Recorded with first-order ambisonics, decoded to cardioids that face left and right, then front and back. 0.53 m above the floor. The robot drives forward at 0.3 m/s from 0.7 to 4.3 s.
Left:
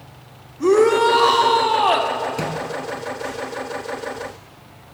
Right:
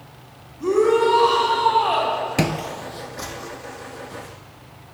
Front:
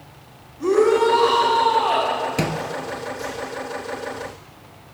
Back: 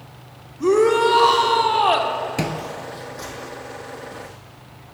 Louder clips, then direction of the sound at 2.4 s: Right 1 dB, front 2 dB; 85° right.